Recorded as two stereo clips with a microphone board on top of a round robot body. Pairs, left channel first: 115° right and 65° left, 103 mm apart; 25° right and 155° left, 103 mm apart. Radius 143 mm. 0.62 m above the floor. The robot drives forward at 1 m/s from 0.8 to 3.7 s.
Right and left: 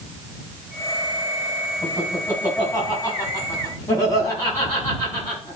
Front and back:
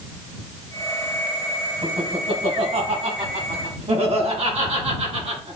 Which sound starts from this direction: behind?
Laughter, at 1.8 s.